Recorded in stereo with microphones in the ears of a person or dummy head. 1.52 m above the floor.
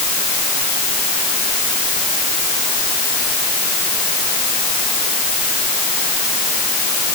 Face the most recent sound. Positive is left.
No sound to turn to.